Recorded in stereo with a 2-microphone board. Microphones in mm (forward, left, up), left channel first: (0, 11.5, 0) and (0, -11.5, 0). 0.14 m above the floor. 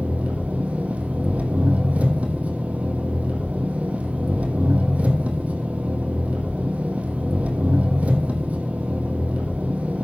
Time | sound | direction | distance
0.0 | an engine running | 80° right | 1.6 m